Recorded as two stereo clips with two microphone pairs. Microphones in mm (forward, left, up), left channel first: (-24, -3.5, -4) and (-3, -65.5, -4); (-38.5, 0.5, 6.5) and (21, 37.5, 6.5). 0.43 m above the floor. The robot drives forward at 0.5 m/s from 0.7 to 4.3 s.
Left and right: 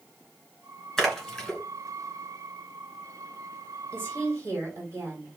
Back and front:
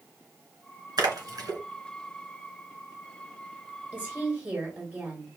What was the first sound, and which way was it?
A splash, 25° left.